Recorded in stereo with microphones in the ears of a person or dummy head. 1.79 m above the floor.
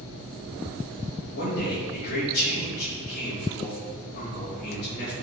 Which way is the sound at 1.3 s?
55° left (ahead or behind).